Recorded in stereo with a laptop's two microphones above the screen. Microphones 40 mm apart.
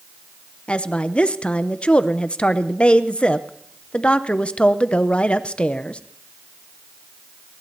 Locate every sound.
0.7 s a woman speaking: 30° left (ahead or behind), 0.7 m